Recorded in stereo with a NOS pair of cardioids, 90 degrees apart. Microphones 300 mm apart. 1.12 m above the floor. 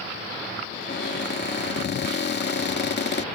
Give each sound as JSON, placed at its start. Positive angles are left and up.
{"t": 0.7, "sound": "a cupboard door", "azimuth_deg": 35}